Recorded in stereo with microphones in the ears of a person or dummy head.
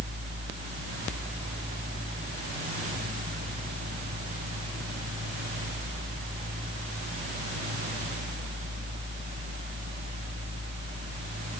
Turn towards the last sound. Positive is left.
No sound to turn to.